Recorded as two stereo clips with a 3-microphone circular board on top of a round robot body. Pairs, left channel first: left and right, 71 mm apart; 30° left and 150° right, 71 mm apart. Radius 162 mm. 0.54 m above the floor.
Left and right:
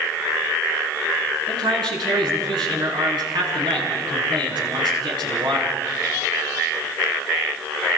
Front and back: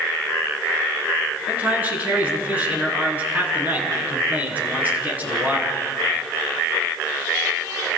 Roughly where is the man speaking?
Right.